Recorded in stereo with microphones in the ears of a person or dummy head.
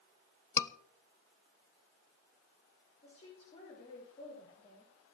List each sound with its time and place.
0.6 s a scream: 15° left (ahead or behind), 1.1 m
3.0 s a woman speaking: 35° left (ahead or behind), 6 m